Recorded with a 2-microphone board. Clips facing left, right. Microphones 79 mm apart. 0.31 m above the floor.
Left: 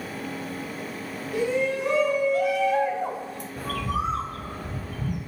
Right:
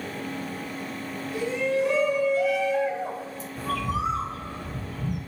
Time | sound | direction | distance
1.3 | a shout | 55° left (ahead or behind) | 3 m
3.6 | a bird | 50° left (ahead or behind) | 1.6 m